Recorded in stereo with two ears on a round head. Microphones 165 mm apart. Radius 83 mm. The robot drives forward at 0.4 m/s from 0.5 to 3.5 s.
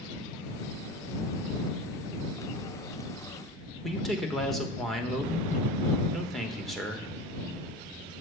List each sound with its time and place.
3.8 s a man speaking: centre (ahead or behind), 1.1 m